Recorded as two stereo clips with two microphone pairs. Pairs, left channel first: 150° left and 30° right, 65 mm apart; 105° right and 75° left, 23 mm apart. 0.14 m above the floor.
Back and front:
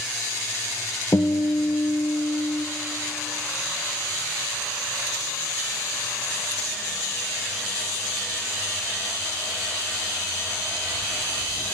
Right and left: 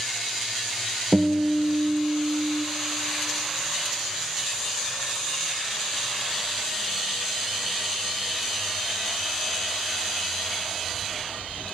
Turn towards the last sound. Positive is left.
turn(degrees=160)